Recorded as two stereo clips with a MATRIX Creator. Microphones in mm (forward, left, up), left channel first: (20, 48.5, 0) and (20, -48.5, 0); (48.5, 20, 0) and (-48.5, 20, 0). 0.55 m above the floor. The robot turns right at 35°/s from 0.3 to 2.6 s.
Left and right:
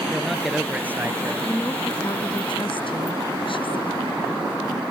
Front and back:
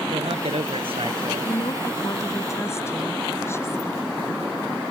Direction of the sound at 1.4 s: 20° left.